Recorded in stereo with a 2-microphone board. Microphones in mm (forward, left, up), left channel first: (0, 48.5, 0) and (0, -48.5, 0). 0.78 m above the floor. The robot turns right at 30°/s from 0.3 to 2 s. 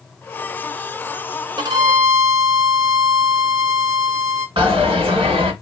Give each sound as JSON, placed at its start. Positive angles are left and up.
{"t": 1.6, "sound": "a violin", "side_deg": -50, "distance_m": 0.8}
{"t": 4.6, "sound": "a dropped coin", "side_deg": -65, "distance_m": 1.9}